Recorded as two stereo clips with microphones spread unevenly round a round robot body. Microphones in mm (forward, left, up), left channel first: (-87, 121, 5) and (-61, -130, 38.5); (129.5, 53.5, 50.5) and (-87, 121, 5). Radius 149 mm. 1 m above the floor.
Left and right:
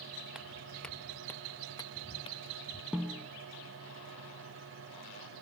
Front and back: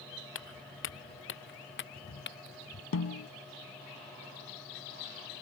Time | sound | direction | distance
0.3 | footsteps | 5° left | ?
2.9 | a snare drum | straight ahead | ?